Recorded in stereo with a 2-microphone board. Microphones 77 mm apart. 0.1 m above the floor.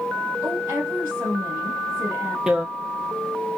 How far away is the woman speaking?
About 3.5 m.